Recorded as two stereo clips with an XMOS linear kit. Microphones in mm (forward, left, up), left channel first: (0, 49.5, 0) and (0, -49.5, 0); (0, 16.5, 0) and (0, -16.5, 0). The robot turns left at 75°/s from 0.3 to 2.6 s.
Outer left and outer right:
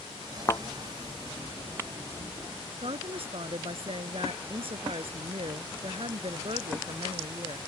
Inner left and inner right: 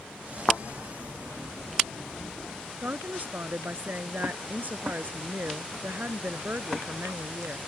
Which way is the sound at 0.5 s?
35° left (ahead or behind).